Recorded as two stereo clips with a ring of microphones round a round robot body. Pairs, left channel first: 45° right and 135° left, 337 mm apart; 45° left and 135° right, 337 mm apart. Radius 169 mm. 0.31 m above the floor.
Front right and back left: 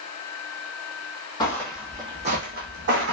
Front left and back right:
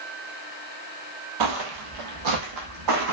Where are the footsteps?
120° right, 0.7 m; by 3.1 s 170° right, 1.2 m.